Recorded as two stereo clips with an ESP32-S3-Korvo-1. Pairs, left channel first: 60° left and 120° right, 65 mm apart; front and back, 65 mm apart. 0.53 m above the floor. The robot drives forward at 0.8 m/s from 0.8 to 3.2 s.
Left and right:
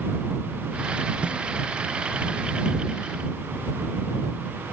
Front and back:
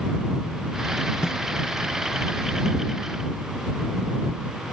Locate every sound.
1.2 s a snare drum: 50° right